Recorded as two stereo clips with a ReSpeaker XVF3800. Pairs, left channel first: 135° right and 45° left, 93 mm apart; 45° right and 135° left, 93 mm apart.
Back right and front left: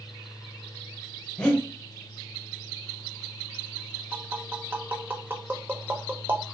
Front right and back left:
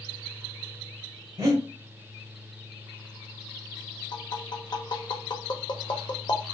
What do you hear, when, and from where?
1.4 s breathing: 150° left, 1.0 m
4.1 s tapping: 20° right, 0.5 m